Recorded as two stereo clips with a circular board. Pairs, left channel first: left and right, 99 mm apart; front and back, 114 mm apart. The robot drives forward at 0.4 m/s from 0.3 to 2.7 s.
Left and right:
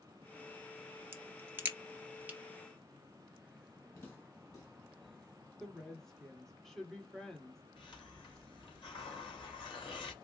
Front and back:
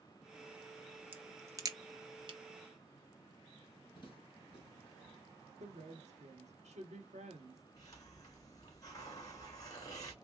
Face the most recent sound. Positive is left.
turn(degrees=60)